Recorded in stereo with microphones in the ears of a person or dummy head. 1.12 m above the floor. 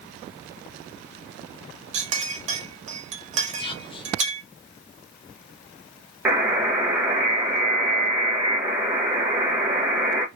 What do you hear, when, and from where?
1.9 s a clink: 35° right (ahead or behind), 0.6 m
3.6 s whispering: 30° left (ahead or behind), 1.1 m
6.2 s a buzzer: 10° right (ahead or behind), 0.6 m